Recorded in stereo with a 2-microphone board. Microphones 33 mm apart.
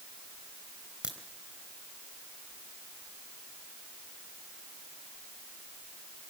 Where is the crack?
25° right (ahead or behind), 3.5 m.